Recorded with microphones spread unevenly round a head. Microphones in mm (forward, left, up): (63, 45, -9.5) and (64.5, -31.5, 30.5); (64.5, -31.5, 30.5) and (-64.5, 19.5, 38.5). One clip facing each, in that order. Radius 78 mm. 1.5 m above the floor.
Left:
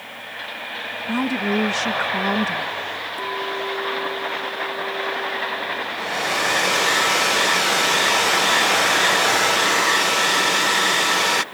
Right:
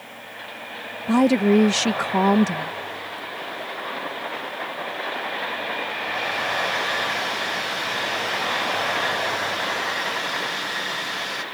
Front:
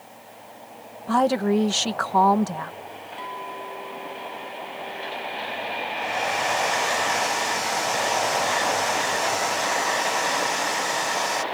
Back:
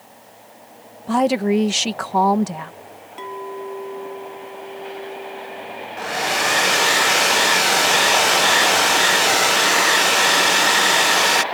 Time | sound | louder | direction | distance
1.1 | a woman speaking | right 6 dB, back 3 dB | 125° right | ?
3.2 | a clink | left 7 dB, back 6 dB | 110° left | ?
6.0 | a hair dryer | left 6 dB, back 4 dB | 145° left | ?